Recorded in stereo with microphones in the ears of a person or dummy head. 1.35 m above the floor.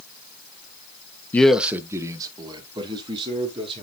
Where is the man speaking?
10° left (ahead or behind), 0.6 m; by 3.9 s 25° right (ahead or behind), 3 m.